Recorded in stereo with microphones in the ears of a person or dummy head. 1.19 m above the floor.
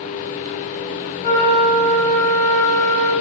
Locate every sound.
1.2 s a flute: 15° right (ahead or behind), 0.9 m